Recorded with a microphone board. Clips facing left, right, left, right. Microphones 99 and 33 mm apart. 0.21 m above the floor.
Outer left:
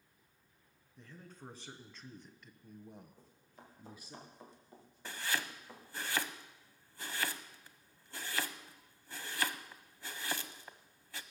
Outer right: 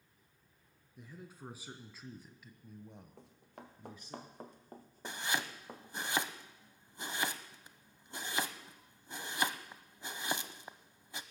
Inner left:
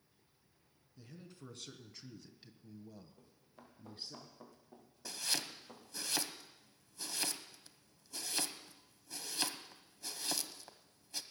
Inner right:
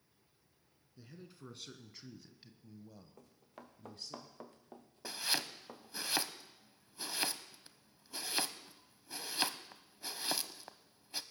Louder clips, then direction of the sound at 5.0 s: Outer right 1 dB, inner right 2 dB; 20° right (ahead or behind).